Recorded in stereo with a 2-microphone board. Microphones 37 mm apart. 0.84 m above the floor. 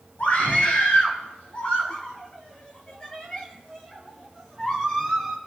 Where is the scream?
55° left (ahead or behind), 5.5 m; by 5.4 s 10° left (ahead or behind), 5.5 m.